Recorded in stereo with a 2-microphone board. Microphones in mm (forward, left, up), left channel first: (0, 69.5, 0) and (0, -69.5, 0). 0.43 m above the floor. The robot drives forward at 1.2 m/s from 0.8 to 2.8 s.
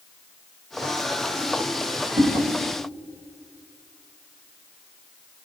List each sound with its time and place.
2.2 s a whoosh: 50° right (ahead or behind), 1.3 m